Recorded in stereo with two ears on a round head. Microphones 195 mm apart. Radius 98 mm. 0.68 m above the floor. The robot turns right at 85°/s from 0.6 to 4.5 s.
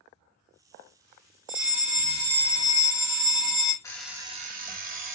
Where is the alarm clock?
165° left, 0.5 m; by 5.2 s 140° right, 0.5 m.